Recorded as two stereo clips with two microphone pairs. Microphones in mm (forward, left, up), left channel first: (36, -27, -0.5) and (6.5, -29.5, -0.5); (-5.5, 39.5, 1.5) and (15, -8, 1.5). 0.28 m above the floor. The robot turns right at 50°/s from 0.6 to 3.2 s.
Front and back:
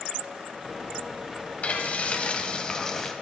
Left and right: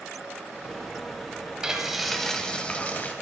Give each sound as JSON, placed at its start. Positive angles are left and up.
{"t": 1.6, "sound": "frying", "azimuth_deg": 5, "distance_m": 1.9}